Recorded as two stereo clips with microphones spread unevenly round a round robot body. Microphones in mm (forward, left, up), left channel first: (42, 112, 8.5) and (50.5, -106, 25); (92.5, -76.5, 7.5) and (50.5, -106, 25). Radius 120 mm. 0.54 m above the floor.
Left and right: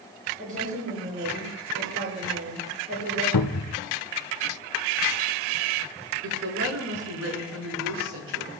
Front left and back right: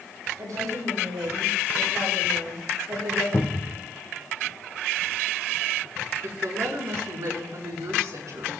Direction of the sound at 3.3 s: 100° left.